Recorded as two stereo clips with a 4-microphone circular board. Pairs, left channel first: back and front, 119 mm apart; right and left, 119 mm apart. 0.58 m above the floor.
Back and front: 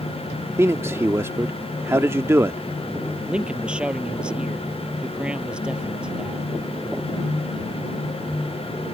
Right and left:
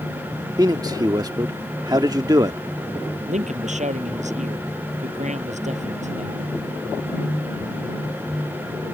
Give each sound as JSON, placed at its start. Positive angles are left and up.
{"t": 0.6, "sound": "a man speaking", "azimuth_deg": 55}
{"t": 3.3, "sound": "a man speaking", "azimuth_deg": 80}